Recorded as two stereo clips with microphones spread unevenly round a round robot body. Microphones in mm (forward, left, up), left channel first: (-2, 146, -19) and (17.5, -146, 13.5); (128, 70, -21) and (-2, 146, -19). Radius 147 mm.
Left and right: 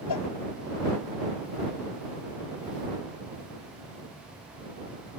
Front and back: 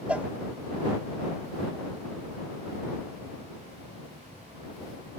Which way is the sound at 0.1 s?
70° left.